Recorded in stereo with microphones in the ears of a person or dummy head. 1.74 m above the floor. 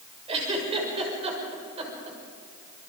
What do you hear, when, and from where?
0.3 s a giggle: 30° right (ahead or behind), 6 m